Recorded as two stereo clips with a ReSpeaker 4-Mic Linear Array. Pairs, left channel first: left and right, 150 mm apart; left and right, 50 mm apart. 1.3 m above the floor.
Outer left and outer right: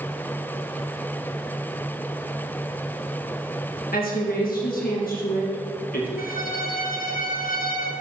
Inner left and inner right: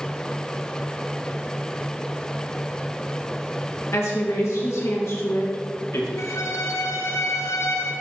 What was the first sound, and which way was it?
A woman speaking, 75° left (ahead or behind).